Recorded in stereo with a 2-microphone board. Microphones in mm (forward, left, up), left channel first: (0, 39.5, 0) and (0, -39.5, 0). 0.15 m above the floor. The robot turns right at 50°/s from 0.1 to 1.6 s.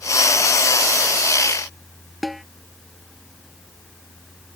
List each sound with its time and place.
2.2 s a snare drum: centre (ahead or behind)